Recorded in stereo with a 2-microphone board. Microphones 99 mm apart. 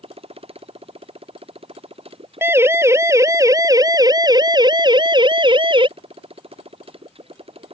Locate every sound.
0.0 s a motorcycle: 85° right; by 7.7 s 80° right
2.4 s a siren: 25° right (ahead or behind); by 5.9 s 60° right (ahead or behind)